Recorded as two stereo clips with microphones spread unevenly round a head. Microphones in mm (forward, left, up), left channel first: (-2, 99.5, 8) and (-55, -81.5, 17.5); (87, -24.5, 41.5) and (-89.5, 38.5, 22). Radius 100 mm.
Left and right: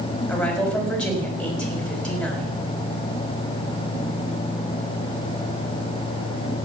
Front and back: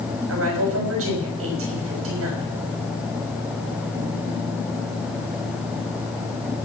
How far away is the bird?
No bird in this recording.